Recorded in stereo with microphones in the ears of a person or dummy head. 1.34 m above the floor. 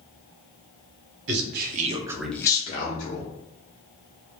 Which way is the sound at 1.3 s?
65° right (ahead or behind).